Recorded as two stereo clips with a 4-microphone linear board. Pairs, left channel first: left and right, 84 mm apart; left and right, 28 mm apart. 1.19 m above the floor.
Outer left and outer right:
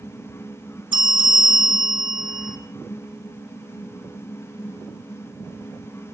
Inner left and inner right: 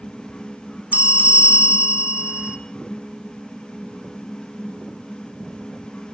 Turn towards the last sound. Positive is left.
turn(degrees=-75)  # may be behind; listen again after turning